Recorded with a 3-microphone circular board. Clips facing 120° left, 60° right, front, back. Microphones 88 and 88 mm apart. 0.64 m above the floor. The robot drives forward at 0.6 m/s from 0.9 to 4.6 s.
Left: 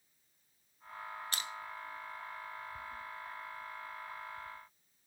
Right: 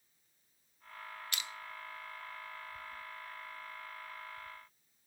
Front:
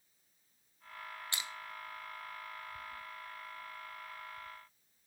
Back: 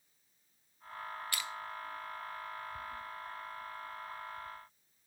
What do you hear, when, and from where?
1.3 s crushing: 65° left, 0.7 m; by 1.5 s 75° left, 0.6 m